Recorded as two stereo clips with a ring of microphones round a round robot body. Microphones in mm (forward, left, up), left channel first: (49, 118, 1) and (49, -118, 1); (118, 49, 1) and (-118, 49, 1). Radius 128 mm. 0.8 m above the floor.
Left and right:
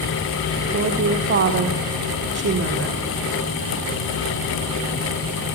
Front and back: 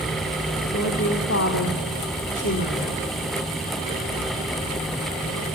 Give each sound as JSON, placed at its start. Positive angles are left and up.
{"t": 0.7, "sound": "a woman speaking", "azimuth_deg": -50, "distance_m": 1.7}